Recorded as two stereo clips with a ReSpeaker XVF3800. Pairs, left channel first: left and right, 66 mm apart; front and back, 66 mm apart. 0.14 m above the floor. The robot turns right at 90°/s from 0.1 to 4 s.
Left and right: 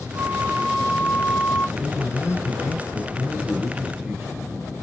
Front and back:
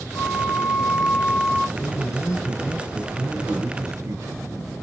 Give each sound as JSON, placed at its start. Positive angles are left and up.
{"t": 0.1, "sound": "a flute", "azimuth_deg": -55, "distance_m": 1.3}
{"t": 1.8, "sound": "a man speaking", "azimuth_deg": 5, "distance_m": 1.9}